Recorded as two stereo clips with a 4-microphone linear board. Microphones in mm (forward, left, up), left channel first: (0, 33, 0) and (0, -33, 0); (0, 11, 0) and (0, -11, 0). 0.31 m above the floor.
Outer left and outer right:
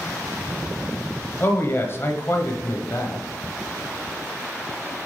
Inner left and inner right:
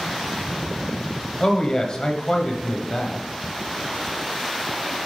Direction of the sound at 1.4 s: 35° left (ahead or behind).